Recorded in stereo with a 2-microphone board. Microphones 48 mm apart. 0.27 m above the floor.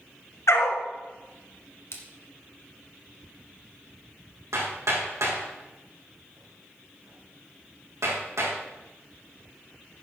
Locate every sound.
0.5 s a dog barking: 75° left (ahead or behind), 1.3 m
1.9 s a splash: 65° left (ahead or behind), 1.5 m
4.5 s hammering: 85° right, 4 m